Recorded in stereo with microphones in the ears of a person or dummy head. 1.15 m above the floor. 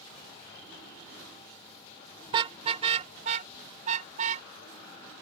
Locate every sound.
2.3 s a car horn: 20° right (ahead or behind); by 4.5 s 35° right (ahead or behind)